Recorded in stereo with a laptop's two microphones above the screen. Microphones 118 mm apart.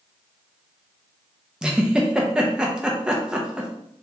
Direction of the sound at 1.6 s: 5° right (ahead or behind).